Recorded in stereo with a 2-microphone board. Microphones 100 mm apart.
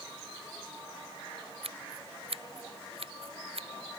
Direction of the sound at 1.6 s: 70° right (ahead or behind).